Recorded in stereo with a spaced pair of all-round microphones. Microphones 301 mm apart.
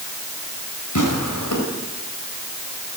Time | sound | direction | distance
0.9 | tearing paper | 80° left | 5 m